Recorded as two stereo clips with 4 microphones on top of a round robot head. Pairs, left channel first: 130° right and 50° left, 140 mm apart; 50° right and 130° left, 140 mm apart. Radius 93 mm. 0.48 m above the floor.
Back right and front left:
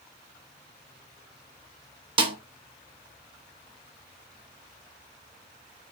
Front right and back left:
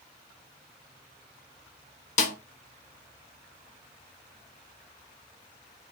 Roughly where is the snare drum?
Ahead.